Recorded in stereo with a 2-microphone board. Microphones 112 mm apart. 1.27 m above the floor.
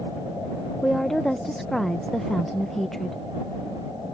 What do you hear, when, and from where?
0.8 s a woman speaking: 5° left (ahead or behind)